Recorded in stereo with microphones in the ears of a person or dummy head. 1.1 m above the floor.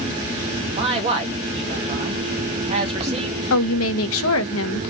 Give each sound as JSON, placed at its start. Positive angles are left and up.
{"t": 0.7, "sound": "a man speaking", "side_deg": -35, "distance_m": 1.4}
{"t": 3.5, "sound": "a woman speaking", "side_deg": 65, "distance_m": 0.6}